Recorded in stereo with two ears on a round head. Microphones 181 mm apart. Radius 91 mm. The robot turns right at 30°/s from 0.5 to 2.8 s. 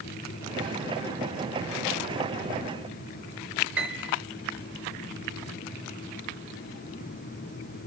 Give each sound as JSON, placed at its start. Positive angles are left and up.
{"t": 3.8, "sound": "a piano", "side_deg": -5, "distance_m": 3.0}